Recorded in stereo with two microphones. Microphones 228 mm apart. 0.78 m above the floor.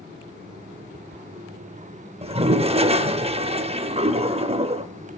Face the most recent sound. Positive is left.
turn(degrees=-25)  # may be behind; listen again after turning